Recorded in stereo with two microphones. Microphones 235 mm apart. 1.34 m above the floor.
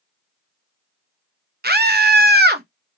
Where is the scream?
45° right (ahead or behind), 0.8 m.